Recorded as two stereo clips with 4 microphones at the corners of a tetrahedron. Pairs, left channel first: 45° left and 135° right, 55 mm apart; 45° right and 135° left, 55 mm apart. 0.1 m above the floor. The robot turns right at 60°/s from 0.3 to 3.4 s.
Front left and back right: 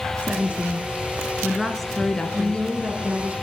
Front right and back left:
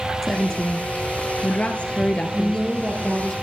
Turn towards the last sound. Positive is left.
turn(degrees=-130)